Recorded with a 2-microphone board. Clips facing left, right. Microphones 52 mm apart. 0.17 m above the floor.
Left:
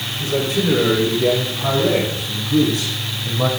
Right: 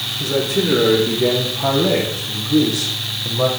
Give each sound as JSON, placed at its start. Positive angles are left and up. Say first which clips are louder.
{"t": 0.2, "sound": "a man speaking", "louder": "right 1 dB", "side_deg": -75, "distance_m": 8.0}